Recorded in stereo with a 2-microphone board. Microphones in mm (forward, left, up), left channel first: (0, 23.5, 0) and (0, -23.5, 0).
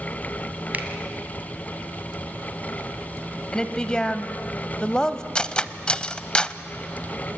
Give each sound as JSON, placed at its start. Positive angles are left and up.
{"t": 0.7, "sound": "a finger snap", "side_deg": -35, "distance_m": 1.9}
{"t": 3.5, "sound": "a woman speaking", "side_deg": 15, "distance_m": 1.0}
{"t": 5.3, "sound": "cutlery clinking", "side_deg": 20, "distance_m": 0.5}